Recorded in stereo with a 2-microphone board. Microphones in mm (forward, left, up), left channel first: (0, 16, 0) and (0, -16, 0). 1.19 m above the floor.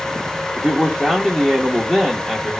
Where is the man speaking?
15° right (ahead or behind), 1.4 m.